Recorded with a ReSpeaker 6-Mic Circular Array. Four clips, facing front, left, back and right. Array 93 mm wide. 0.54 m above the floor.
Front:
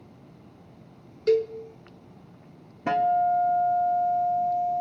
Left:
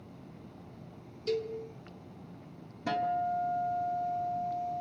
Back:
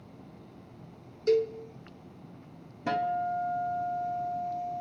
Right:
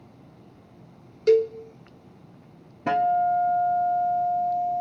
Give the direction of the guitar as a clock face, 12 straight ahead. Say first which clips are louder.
Right 9 dB, front 7 dB; 2 o'clock.